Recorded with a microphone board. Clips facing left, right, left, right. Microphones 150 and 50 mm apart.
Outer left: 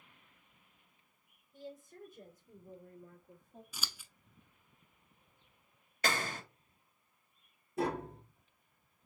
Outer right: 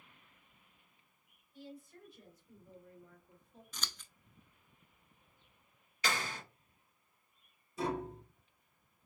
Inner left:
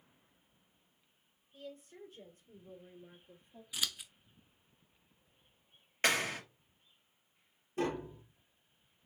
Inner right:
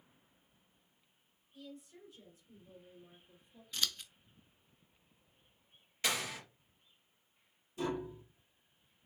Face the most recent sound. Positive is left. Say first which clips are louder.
# outer left 2 dB, inner left 2 dB
turn(degrees=60)  # may be behind; listen again after turning